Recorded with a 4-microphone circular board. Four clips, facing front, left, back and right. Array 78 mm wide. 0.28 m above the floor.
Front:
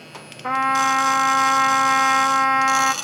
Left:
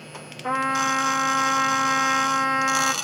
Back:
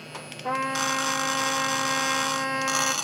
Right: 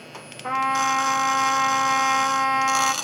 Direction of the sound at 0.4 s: Straight ahead.